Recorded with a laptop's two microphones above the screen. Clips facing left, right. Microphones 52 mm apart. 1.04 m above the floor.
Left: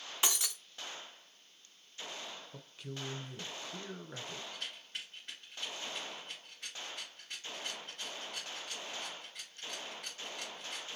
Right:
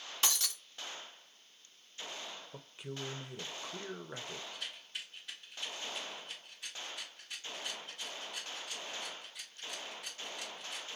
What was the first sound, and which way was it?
Breaking glass, 15° left (ahead or behind).